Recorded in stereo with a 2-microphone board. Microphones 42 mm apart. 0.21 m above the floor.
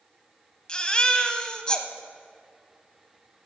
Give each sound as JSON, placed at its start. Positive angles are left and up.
{"t": 0.7, "sound": "a baby crying", "side_deg": 20, "distance_m": 0.6}